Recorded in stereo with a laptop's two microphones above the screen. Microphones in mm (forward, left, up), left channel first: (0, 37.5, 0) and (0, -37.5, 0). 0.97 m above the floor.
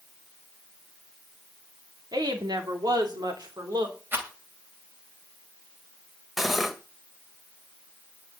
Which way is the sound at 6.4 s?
5° right (ahead or behind).